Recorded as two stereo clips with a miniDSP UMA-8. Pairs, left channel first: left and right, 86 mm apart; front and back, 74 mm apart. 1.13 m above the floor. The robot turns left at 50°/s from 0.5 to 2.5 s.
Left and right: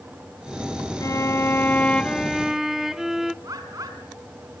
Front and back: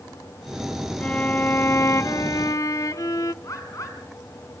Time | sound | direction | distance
1.0 | a violin | 65° left | 0.6 m
3.4 | a bird | 45° right | 4 m